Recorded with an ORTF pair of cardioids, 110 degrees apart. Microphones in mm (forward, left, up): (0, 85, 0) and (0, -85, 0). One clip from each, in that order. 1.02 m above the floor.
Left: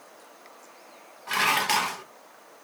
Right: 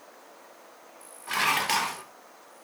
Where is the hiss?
No hiss in this recording.